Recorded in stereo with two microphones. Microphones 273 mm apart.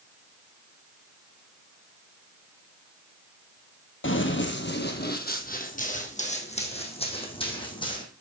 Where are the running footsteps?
45° left (ahead or behind), 1.5 m; by 8.1 s 15° left (ahead or behind), 3 m.